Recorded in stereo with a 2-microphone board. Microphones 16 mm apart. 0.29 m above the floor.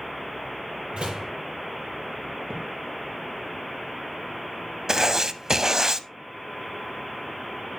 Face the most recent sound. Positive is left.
turn(degrees=-35)  # may be behind; listen again after turning